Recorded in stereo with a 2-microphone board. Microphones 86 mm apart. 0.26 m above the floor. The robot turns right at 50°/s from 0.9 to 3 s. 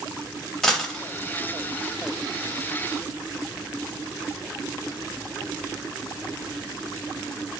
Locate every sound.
0.6 s a dropped coin: 5° left (ahead or behind), 0.5 m